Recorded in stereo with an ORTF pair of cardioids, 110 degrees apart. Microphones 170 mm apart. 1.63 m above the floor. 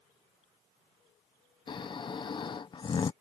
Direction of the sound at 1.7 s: 30° left.